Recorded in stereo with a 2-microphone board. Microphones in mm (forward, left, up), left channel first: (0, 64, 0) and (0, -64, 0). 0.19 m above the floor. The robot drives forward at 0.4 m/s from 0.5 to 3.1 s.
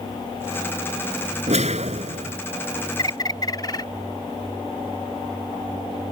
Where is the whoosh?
65° right (ahead or behind).